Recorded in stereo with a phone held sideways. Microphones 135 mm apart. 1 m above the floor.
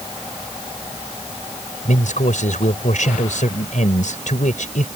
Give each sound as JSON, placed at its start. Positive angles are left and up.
{"t": 1.9, "sound": "a man speaking", "side_deg": 70}